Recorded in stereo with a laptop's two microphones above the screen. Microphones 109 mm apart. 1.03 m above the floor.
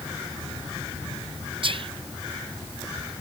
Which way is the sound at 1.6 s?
55° right (ahead or behind).